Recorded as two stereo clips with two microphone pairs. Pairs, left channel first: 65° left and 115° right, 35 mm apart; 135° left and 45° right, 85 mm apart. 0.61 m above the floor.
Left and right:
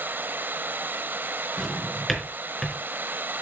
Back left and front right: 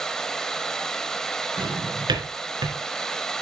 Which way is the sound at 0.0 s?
140° right.